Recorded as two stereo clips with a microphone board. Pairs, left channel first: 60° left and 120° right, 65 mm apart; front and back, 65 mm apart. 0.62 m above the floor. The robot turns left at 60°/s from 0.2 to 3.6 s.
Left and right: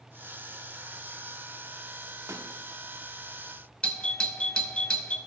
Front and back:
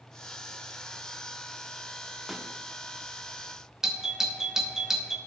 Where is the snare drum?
95° right, 0.8 m; by 2.5 s 110° right, 0.8 m.